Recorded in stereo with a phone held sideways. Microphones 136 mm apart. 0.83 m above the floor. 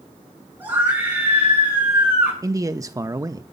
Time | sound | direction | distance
0.6 | a scream | 10° right (ahead or behind) | 7.5 m
2.4 | a man speaking | 25° right (ahead or behind) | 0.6 m